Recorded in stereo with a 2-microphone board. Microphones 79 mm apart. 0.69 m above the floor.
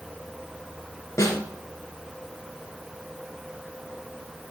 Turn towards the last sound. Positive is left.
turn(degrees=45)  # may be behind; listen again after turning